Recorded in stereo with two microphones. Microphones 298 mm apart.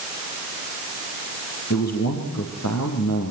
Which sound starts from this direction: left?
A man speaking, at 1.7 s.